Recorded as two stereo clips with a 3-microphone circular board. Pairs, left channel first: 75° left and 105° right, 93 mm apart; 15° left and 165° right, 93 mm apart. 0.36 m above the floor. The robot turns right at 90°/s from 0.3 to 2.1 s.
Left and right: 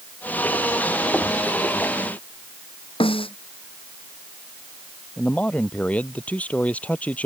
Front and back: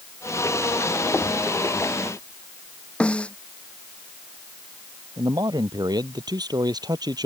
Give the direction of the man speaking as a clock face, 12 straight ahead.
7 o'clock.